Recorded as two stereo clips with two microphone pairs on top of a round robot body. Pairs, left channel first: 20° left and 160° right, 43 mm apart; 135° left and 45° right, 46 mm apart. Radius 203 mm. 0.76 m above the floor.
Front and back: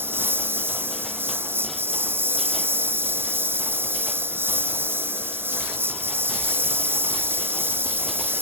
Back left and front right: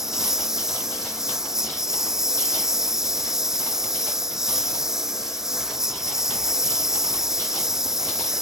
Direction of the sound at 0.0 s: 125° right.